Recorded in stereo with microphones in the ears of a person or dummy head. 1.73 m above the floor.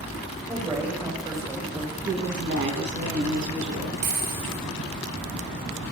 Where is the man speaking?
20° right (ahead or behind), 4 m.